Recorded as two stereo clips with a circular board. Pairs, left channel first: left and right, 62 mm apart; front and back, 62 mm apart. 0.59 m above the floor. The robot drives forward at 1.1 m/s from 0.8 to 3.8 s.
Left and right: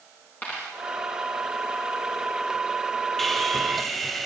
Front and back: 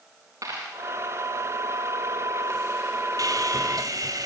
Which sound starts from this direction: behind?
Sawing, at 3.2 s.